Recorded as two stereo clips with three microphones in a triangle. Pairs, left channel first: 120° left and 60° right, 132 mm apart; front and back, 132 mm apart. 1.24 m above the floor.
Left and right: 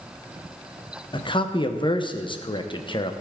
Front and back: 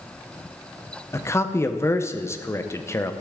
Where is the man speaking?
70° left, 0.7 m.